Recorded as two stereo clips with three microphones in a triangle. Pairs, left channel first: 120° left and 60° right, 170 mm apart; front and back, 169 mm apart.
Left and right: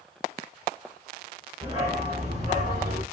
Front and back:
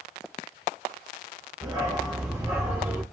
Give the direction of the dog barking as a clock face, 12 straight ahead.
4 o'clock.